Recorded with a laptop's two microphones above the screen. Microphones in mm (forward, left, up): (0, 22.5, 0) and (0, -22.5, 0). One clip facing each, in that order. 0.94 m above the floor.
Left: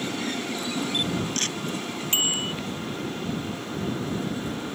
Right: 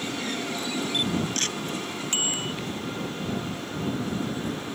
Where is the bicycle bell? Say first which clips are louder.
Left 4 dB; 25° left (ahead or behind).